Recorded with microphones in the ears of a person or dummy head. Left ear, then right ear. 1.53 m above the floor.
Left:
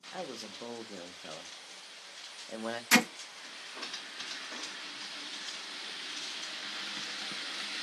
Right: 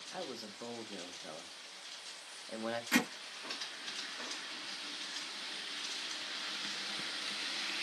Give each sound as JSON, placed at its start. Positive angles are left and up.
{"t": 0.1, "sound": "a man speaking", "side_deg": 5, "distance_m": 0.5}
{"t": 2.9, "sound": "hammering", "side_deg": 65, "distance_m": 1.0}